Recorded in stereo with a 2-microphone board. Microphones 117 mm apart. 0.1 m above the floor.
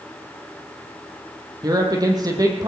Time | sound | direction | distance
1.6 | a woman speaking | 35° right (ahead or behind) | 3.5 m